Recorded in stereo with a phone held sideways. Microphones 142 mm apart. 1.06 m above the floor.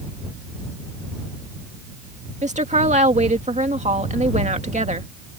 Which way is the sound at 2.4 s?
50° right (ahead or behind).